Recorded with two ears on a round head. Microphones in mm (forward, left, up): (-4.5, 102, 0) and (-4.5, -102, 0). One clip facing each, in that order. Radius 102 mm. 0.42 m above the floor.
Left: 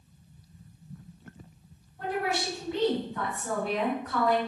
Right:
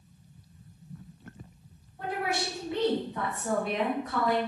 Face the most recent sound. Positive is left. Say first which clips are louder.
# left 1 dB
turn(degrees=-20)  # may be behind; listen again after turning